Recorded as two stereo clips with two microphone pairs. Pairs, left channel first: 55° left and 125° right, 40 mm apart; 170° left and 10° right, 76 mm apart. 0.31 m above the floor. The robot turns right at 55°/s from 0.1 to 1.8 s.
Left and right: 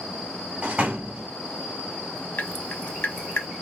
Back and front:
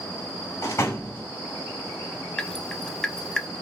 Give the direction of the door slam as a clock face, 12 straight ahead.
6 o'clock.